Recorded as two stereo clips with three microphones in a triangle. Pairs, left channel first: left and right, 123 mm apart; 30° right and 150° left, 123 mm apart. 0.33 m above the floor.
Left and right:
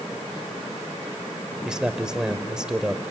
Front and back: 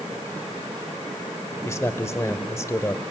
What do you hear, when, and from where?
1.6 s a man speaking: 15° right, 1.2 m